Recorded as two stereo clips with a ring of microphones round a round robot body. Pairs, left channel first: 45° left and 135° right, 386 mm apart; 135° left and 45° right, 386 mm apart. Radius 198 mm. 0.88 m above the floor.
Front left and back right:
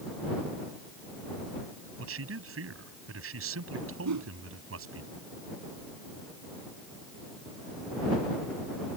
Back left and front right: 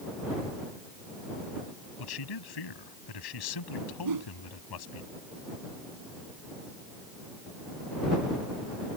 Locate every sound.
2.0 s a man speaking: 165° left
4.0 s a whoosh: 85° right